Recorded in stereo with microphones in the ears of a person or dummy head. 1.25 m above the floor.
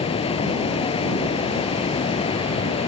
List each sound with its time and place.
0.0 s running water: 30° left (ahead or behind)